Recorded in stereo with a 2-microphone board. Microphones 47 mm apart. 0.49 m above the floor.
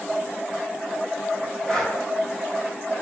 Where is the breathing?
15° left (ahead or behind), 5 m.